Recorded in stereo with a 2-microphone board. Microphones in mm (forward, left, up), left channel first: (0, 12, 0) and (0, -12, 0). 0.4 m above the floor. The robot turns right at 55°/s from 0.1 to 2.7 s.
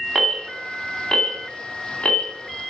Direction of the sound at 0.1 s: 30° right (ahead or behind).